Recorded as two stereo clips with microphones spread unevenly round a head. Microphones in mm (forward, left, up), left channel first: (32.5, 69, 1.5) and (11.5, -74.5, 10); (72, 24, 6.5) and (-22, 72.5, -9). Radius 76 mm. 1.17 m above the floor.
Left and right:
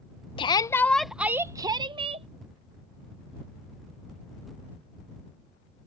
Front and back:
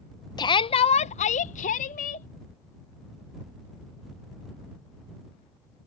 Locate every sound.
0.4 s a shout: 25° left; by 2.3 s 45° right